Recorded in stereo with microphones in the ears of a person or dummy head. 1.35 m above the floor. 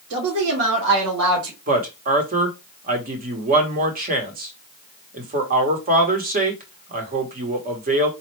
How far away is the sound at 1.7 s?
About 1.2 m.